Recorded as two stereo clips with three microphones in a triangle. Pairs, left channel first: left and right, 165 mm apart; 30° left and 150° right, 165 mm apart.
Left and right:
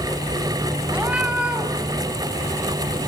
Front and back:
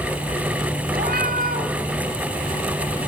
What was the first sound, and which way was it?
A cat meowing, 175° right.